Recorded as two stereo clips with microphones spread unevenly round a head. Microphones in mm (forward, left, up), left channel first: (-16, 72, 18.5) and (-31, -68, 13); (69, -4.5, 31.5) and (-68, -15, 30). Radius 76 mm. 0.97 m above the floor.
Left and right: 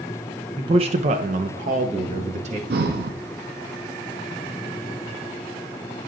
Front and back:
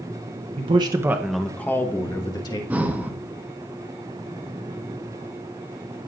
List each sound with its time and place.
0.6 s a man speaking: 145° right, 0.9 m; by 2.6 s 55° right, 1.9 m
2.7 s breathing: 95° right, 1.0 m